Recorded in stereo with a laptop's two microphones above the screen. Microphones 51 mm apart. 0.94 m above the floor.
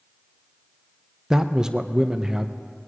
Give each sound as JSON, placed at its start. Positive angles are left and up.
{"t": 1.3, "sound": "a man speaking", "side_deg": -15, "distance_m": 0.5}